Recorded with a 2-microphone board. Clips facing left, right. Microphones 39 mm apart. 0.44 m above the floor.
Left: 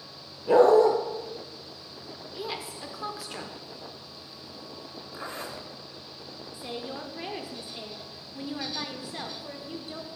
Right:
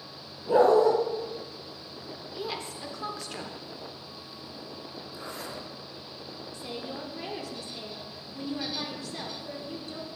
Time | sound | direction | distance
0.5 | a dog barking | 70° left (ahead or behind) | 2 m
2.3 | a woman speaking | 5° left (ahead or behind) | 1.0 m
5.1 | a zipper | 40° left (ahead or behind) | 1.4 m
6.5 | a woman speaking | 20° left (ahead or behind) | 0.8 m